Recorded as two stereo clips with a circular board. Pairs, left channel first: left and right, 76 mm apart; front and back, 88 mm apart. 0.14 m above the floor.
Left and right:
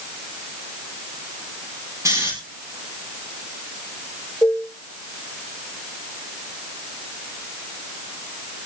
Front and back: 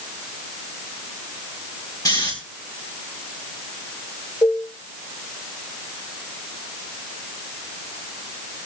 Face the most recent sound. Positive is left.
turn(degrees=40)